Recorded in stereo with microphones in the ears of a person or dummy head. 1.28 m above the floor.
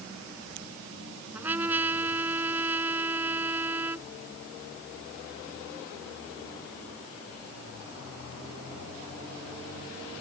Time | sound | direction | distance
1.3 | a trumpet | 10° right (ahead or behind) | ?